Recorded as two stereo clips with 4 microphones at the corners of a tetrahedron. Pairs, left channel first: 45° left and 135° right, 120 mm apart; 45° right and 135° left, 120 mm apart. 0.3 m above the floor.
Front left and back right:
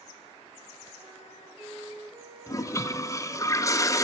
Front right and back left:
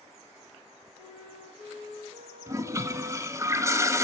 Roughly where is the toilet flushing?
Left.